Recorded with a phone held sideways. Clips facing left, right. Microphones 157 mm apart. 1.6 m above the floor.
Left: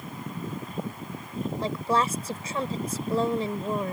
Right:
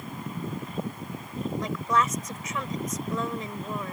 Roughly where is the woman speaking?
Left.